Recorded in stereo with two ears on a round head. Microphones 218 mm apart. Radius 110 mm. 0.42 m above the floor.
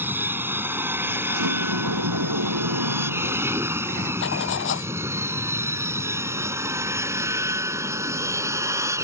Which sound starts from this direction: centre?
An aircraft, at 0.0 s.